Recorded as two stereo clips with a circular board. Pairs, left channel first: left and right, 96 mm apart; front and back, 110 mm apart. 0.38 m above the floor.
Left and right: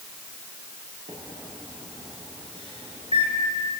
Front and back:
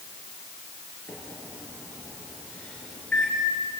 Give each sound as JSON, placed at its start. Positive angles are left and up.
{"t": 1.1, "sound": "a microwave", "azimuth_deg": -80, "distance_m": 6.5}